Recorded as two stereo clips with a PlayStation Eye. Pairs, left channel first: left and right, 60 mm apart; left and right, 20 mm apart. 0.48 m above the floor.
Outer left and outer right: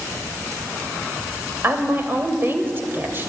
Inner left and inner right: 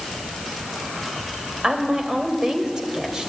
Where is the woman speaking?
35° right (ahead or behind), 2.5 m.